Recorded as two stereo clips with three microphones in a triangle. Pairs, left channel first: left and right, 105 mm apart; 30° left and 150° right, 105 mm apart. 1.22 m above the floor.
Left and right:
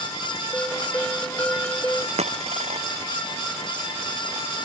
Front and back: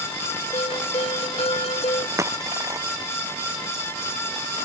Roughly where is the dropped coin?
Right.